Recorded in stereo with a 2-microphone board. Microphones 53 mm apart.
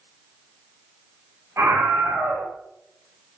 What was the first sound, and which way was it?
A scream, 70° right (ahead or behind).